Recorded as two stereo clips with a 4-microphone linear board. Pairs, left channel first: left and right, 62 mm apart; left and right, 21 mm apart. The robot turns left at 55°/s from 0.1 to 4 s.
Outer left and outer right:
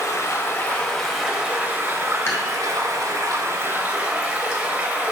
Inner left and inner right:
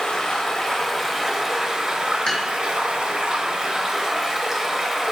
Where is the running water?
60° left, 0.8 m; by 5.1 s 155° right, 0.8 m.